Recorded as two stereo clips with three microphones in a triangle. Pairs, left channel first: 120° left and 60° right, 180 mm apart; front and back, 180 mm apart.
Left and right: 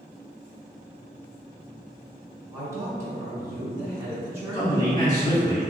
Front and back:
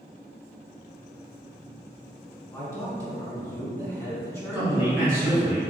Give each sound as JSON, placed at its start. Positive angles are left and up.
{"t": 2.5, "sound": "a man speaking", "azimuth_deg": -35, "distance_m": 1.0}
{"t": 4.5, "sound": "a man speaking", "azimuth_deg": 120, "distance_m": 1.5}